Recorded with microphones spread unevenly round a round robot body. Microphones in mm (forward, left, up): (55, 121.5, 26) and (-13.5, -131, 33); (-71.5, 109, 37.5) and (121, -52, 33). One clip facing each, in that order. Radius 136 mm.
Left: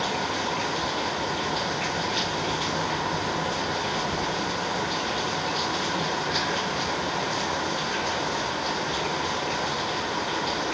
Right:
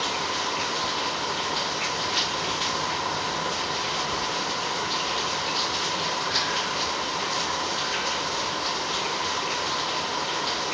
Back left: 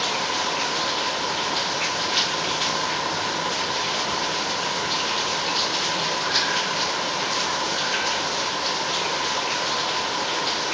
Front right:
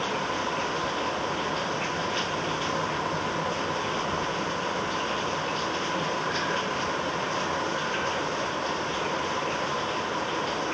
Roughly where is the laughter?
No laughter in this recording.